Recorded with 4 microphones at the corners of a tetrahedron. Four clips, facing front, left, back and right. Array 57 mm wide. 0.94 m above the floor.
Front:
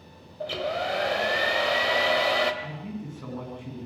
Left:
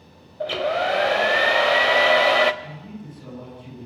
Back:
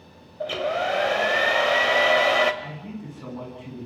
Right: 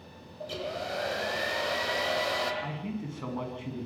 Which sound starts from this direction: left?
A hair dryer, at 0.4 s.